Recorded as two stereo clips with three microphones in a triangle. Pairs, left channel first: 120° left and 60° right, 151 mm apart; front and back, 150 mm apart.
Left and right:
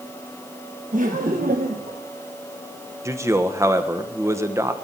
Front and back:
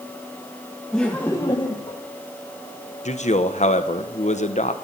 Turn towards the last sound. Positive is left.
turn(degrees=5)